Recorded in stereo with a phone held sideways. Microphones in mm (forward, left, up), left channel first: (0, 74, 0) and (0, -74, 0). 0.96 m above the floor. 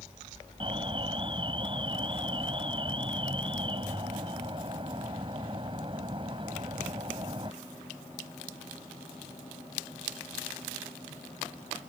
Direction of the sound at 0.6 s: 35° right (ahead or behind).